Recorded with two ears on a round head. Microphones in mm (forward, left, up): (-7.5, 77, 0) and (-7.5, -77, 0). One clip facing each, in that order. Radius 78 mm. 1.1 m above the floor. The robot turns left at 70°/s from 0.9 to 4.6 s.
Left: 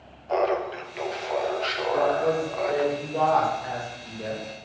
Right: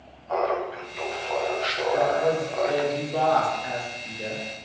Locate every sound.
0.3 s laughter: 45° left, 0.5 m; by 2.9 s 95° right, 0.5 m
1.9 s a woman speaking: 20° right, 1.5 m; by 4.4 s 165° left, 1.5 m